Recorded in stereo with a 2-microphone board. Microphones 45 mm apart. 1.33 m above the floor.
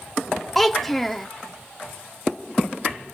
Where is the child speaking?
5° left (ahead or behind), 0.7 m.